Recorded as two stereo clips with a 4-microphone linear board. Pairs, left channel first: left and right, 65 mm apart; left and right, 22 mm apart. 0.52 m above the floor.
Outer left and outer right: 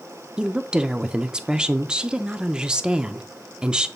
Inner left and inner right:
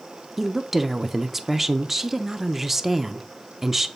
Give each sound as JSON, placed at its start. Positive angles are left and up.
{"t": 0.4, "sound": "a woman speaking", "side_deg": -15, "distance_m": 0.7}